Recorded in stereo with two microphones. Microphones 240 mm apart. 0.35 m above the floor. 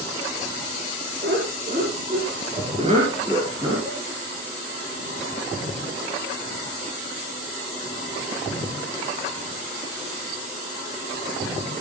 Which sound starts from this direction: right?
Laughter, at 1.2 s.